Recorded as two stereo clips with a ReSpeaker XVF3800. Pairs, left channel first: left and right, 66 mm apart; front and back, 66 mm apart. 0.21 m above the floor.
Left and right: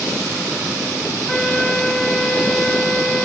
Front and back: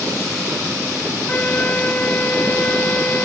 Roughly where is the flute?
Ahead.